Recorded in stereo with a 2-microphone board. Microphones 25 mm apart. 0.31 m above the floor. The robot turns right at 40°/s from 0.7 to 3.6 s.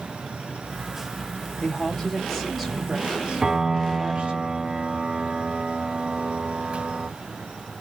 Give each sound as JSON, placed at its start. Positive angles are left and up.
{"t": 1.6, "sound": "a woman speaking", "azimuth_deg": 140, "distance_m": 6.0}
{"t": 3.4, "sound": "a piano", "side_deg": -25, "distance_m": 1.3}